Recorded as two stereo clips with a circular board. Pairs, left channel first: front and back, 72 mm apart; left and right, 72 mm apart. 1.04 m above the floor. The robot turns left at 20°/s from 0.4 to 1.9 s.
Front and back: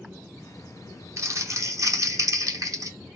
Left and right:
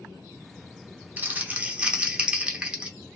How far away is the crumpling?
About 0.8 m.